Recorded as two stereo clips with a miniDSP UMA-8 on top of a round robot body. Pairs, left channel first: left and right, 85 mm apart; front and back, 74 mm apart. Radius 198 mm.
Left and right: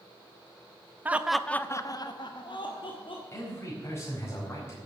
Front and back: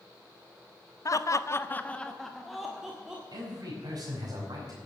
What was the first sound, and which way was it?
Laughter, 25° right.